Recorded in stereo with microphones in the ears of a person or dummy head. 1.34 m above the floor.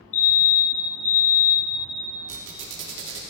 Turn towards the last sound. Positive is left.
turn(degrees=-70)  # may be behind; listen again after turning